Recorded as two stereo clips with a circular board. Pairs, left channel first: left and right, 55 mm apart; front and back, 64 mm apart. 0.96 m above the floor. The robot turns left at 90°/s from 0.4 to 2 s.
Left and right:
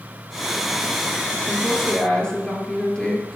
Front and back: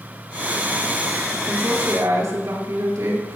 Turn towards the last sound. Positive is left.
turn(degrees=160)